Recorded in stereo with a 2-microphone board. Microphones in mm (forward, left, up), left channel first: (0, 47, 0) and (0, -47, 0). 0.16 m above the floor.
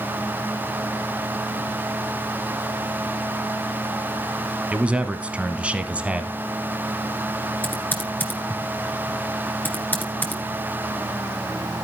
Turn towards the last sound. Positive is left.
turn(degrees=20)  # may be behind; listen again after turning